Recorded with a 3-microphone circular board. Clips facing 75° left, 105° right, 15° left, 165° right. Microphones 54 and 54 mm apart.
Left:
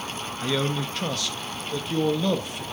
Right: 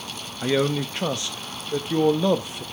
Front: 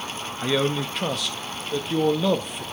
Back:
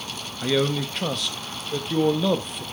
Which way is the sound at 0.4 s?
70° right.